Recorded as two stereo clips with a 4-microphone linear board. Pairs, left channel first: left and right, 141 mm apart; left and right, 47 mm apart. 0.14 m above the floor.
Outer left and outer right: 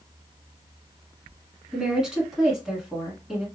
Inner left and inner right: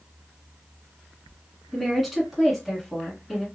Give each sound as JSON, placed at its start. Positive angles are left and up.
{"t": 1.7, "sound": "a woman speaking", "side_deg": -5, "distance_m": 1.3}